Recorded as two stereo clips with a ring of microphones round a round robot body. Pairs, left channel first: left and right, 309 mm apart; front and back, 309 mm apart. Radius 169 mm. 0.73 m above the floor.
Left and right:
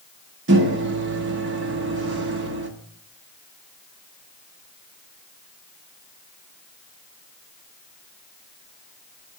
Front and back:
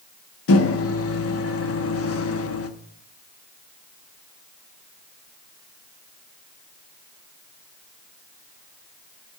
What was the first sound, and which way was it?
A microwave, 40° right.